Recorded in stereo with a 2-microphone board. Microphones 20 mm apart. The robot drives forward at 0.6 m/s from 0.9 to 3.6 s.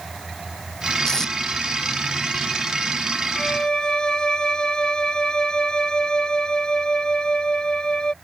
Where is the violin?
45° left (ahead or behind).